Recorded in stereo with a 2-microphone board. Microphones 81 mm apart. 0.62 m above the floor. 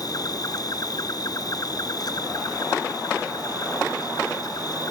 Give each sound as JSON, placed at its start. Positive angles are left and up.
{"t": 0.0, "sound": "an insect", "side_deg": 50}